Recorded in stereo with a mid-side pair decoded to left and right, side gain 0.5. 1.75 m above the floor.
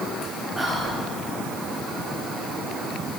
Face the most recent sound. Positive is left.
turn(degrees=0)